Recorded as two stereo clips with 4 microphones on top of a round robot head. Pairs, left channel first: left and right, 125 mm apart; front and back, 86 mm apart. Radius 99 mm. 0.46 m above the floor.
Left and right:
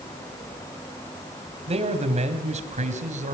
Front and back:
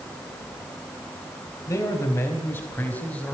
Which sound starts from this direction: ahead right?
A man speaking, at 1.7 s.